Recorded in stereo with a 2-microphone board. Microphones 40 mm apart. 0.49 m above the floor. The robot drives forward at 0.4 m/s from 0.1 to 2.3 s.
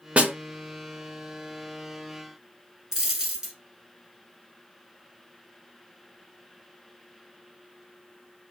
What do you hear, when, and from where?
0.2 s a snare drum: 35° right (ahead or behind), 0.5 m; by 0.3 s 40° right (ahead or behind), 0.5 m
2.9 s a dropped coin: 15° right (ahead or behind), 0.9 m